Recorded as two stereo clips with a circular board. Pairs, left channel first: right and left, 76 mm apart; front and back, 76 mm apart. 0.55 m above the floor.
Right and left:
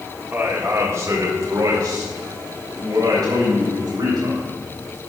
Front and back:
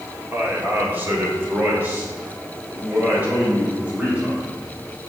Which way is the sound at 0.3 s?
135° left.